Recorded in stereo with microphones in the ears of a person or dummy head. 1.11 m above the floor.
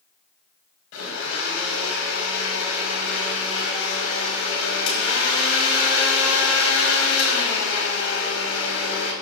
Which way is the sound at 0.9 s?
85° left.